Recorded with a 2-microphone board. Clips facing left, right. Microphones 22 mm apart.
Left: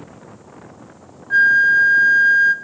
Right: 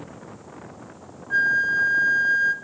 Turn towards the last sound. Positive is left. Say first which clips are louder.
# left 8 dB
turn(degrees=25)  # may be behind; listen again after turning